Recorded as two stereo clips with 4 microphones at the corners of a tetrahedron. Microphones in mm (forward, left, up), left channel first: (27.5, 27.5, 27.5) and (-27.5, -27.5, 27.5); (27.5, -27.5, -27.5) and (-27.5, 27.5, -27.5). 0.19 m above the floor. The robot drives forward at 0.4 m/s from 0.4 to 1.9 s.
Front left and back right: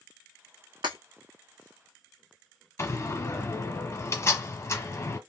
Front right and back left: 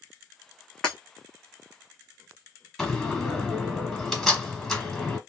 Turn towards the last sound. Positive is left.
turn(degrees=40)